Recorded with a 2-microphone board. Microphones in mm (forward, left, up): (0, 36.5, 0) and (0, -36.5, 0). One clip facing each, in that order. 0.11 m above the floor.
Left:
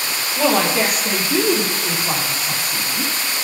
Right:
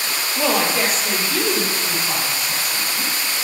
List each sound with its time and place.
0.4 s a woman speaking: 10° right (ahead or behind), 2.5 m; by 3.1 s 25° left (ahead or behind), 6 m